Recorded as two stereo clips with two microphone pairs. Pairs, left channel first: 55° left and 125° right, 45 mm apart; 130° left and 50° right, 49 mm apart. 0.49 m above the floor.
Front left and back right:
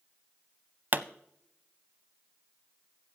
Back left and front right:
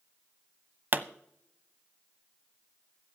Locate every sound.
0.9 s a pop: 90° right, 0.5 m